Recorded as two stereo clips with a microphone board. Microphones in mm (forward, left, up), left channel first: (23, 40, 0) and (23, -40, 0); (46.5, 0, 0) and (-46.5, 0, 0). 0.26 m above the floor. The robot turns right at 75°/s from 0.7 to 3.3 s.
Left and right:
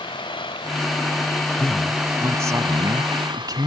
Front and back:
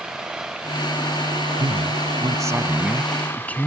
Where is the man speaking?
165° left; by 3.7 s 70° right.